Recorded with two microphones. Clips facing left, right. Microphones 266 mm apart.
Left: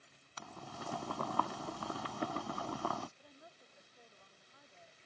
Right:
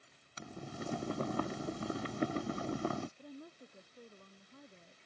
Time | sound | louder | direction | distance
0.4 | boiling | right 5 dB | 20° right (ahead or behind) | ?
3.2 | a woman speaking | right 11 dB | 50° right (ahead or behind) | ?